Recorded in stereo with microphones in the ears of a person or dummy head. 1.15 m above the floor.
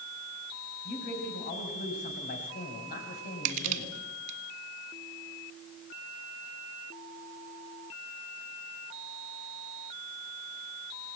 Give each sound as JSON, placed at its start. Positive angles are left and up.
{"t": 0.8, "sound": "a man speaking", "side_deg": 55, "distance_m": 6.5}
{"t": 3.5, "sound": "crushing", "side_deg": -45, "distance_m": 2.5}